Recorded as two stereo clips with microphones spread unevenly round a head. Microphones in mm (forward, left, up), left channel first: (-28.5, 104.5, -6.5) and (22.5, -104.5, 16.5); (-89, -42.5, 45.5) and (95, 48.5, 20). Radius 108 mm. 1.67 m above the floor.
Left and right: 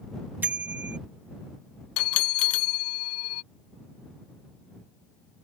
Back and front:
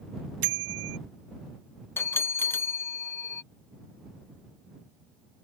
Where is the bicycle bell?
5° left.